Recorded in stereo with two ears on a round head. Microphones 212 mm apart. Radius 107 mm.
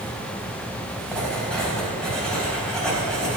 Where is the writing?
5° left (ahead or behind), 4.5 m.